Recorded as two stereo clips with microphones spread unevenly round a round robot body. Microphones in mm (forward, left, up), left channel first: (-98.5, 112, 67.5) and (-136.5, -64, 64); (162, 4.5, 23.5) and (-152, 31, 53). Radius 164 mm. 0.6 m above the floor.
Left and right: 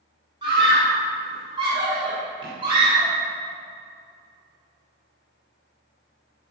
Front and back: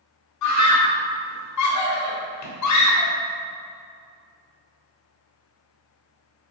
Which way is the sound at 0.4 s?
35° right.